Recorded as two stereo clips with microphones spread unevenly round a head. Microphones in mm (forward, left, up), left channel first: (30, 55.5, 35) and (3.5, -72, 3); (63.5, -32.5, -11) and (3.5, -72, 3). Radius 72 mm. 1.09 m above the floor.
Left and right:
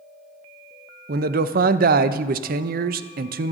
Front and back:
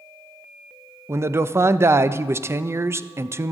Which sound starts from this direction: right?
A man speaking, at 1.1 s.